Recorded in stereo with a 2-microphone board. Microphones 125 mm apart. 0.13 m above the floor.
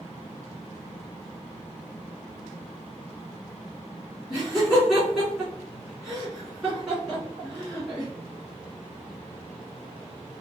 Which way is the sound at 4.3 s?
5° right (ahead or behind).